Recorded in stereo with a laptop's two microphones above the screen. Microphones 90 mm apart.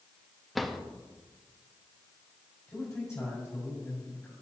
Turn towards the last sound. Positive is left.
turn(degrees=25)  # may be behind; listen again after turning